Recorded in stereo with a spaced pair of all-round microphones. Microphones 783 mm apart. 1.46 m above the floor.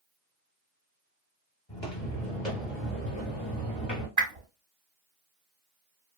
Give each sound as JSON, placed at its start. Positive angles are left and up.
{"t": 1.7, "sound": "footsteps", "side_deg": 30, "distance_m": 1.7}
{"t": 4.2, "sound": "a whoosh", "side_deg": -25, "distance_m": 1.0}